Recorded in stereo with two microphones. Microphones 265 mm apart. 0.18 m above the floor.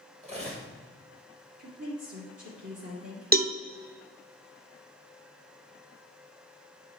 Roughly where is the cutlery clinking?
Right.